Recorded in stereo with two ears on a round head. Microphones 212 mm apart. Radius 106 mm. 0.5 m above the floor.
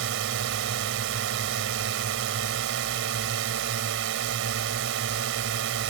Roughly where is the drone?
Right.